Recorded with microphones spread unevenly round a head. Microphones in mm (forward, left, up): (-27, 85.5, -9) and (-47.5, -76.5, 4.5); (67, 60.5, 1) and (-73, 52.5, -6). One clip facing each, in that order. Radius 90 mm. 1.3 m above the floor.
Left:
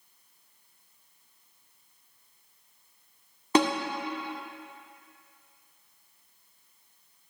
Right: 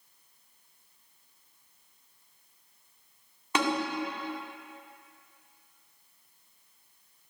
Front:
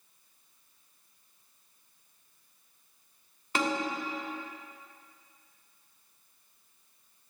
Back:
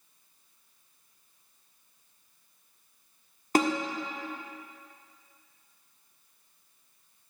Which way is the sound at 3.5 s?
135° left.